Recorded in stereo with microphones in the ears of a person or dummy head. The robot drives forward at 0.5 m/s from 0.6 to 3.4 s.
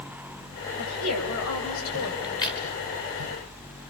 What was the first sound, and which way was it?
A woman speaking, 85° left.